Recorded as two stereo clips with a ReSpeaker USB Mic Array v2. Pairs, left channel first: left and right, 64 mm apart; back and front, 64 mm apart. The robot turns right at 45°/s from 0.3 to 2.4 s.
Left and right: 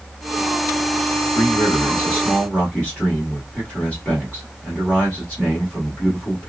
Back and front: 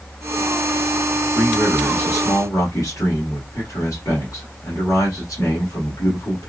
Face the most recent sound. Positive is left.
turn(degrees=160)